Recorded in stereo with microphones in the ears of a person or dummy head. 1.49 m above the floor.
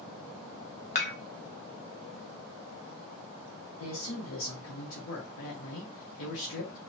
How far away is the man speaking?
About 0.7 m.